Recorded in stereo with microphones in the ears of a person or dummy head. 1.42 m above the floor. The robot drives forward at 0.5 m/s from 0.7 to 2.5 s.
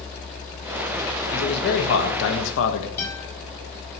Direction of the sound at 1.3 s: 55° left (ahead or behind).